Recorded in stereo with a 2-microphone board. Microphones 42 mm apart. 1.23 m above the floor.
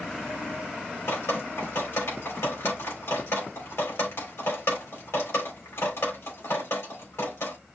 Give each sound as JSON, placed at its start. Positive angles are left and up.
{"t": 1.1, "sound": "dripping", "side_deg": 85, "distance_m": 3.0}